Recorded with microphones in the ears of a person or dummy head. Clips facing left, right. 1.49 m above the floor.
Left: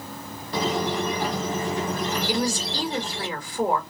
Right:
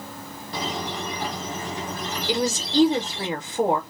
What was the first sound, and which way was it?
A squeak, 45° left (ahead or behind).